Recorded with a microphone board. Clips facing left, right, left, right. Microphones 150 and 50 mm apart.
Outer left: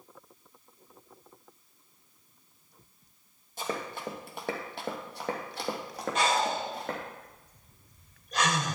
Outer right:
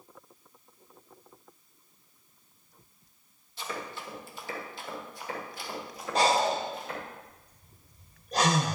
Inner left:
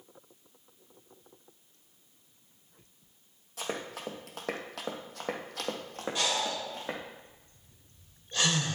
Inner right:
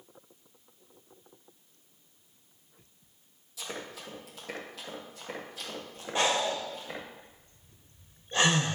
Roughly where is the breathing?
Right.